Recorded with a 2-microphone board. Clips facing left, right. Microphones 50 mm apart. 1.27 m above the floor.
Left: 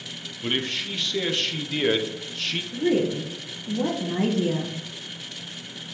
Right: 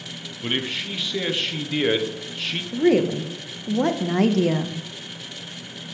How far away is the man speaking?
About 0.8 m.